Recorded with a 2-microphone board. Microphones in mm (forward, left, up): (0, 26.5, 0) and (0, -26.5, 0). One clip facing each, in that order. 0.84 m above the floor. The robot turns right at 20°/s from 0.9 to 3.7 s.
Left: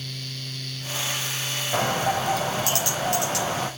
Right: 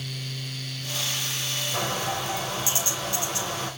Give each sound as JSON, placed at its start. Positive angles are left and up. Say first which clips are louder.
{"t": 1.7, "sound": "a bird", "louder": "left 6 dB", "azimuth_deg": 50, "distance_m": 4.5}